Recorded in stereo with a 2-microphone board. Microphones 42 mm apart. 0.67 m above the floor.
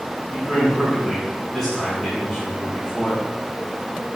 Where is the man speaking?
5° left (ahead or behind), 6.5 m.